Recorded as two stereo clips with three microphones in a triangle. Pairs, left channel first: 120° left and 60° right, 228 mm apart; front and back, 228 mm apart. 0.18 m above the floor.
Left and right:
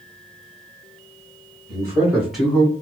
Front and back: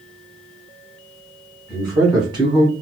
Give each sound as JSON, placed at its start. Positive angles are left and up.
{"t": 1.7, "sound": "a man speaking", "azimuth_deg": -100, "distance_m": 1.8}